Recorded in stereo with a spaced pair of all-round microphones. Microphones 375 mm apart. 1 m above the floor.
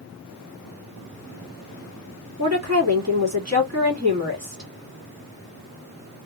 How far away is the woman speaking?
About 2.5 m.